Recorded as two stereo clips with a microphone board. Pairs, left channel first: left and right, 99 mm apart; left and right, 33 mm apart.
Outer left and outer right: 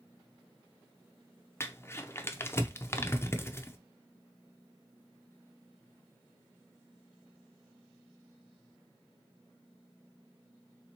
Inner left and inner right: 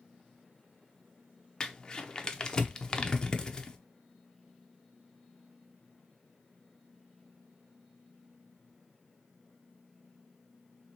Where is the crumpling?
25° left (ahead or behind), 0.6 m.